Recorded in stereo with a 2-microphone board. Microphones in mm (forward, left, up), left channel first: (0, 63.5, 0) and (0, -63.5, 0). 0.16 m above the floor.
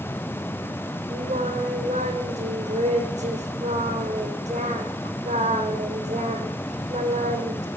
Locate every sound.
1.1 s singing: 65° right (ahead or behind), 3.5 m